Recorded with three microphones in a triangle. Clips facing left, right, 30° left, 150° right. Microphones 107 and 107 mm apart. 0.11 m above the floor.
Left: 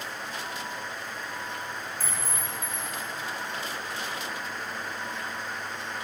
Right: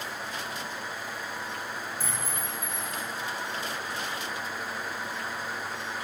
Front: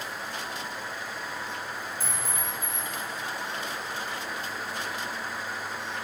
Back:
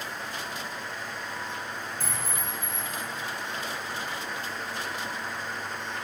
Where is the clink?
160° right, 1.3 m.